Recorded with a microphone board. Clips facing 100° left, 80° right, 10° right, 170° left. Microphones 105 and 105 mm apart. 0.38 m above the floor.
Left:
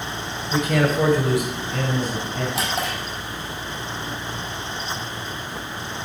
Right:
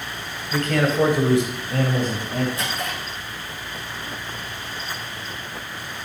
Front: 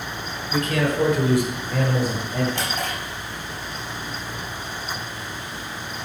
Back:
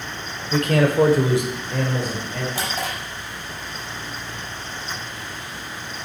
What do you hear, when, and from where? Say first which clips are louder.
0.5 s a man speaking: left 1 dB, back 4 dB; 175° left, 1.6 m; by 2.5 s 75° right, 1.9 m
2.5 s a drawer: left 3 dB, even; 90° left, 5 m